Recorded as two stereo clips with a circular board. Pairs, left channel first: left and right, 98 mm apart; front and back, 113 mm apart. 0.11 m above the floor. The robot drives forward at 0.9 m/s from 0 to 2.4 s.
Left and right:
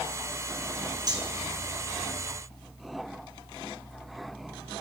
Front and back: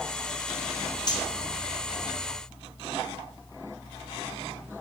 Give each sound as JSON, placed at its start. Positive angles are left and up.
{"t": 1.1, "sound": "cutlery clinking", "azimuth_deg": -45, "distance_m": 1.8}